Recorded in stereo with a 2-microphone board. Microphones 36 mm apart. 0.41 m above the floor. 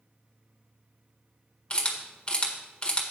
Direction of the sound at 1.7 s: 30° left (ahead or behind).